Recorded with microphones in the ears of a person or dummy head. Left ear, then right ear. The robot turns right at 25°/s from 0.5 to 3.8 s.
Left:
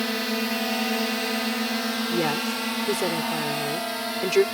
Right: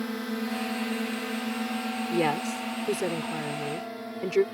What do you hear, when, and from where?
0.0 s a drone: 35° left (ahead or behind); by 4.5 s 55° left (ahead or behind)
2.1 s a woman speaking: 15° right; by 4.4 s 30° left